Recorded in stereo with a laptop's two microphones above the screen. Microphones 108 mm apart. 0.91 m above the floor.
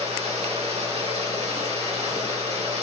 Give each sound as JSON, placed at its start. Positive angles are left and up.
{"t": 0.0, "sound": "running water", "side_deg": -80, "distance_m": 2.0}